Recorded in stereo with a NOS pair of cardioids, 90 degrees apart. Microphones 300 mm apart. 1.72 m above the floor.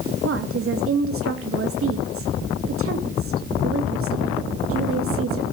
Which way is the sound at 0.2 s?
45° right.